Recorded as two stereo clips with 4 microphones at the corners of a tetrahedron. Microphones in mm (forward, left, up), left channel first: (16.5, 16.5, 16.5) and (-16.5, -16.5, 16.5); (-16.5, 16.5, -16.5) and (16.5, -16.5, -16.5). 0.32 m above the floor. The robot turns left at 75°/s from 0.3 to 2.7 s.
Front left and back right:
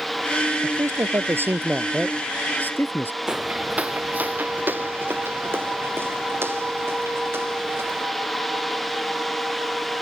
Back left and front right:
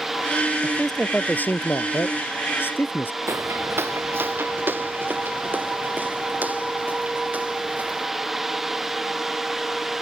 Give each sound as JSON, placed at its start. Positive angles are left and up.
{"t": 0.6, "sound": "a man speaking", "azimuth_deg": -115}
{"t": 3.3, "sound": "footsteps", "azimuth_deg": -60}